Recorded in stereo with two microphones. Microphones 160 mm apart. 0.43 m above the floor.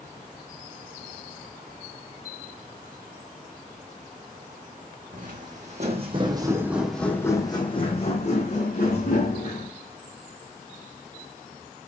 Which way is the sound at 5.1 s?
60° right (ahead or behind).